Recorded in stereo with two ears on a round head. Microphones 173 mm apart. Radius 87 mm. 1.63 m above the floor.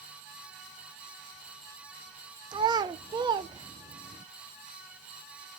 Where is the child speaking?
20° right (ahead or behind), 0.6 m.